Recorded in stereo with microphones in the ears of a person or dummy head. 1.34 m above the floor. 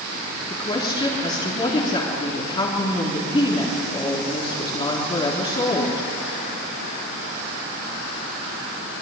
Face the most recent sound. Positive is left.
turn(degrees=20)  # may be behind; listen again after turning